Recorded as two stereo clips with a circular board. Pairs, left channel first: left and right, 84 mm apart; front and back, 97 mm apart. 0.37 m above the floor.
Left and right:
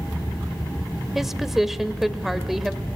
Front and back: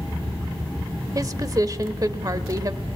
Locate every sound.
1.1 s a woman speaking: 175° right, 1.3 m